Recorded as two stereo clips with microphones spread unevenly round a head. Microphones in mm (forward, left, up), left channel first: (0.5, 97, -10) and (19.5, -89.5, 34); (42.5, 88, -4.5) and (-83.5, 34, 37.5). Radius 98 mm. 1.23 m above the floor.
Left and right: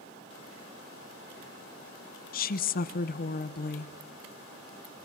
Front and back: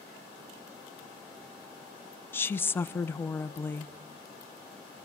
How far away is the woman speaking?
About 0.9 m.